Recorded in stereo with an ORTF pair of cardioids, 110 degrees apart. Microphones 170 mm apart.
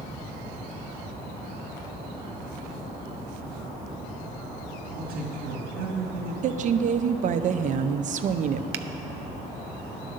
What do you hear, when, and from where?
4.9 s a man speaking: 65° right, 1.8 m
6.4 s a woman speaking: 50° right, 0.7 m
8.7 s a finger snap: 70° right, 0.7 m